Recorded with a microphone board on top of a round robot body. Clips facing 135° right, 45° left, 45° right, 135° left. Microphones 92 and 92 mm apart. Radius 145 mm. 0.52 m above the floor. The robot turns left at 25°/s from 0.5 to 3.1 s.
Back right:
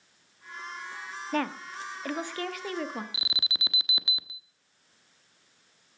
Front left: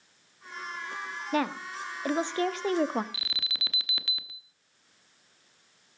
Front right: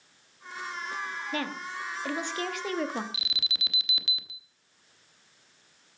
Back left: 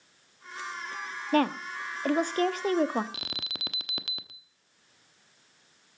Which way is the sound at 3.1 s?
160° left.